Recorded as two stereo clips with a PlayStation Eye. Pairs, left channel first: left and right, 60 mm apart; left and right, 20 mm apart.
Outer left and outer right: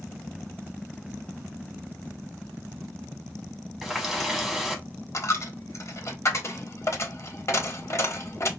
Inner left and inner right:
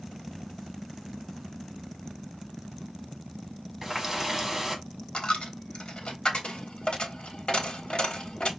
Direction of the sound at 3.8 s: Centre (ahead or behind).